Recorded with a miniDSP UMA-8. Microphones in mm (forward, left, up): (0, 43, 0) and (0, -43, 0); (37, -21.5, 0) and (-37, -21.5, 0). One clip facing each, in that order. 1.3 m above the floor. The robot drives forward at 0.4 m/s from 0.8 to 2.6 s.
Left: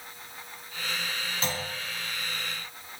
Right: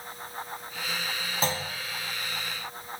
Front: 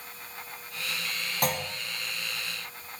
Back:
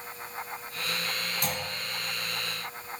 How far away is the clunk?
About 0.6 m.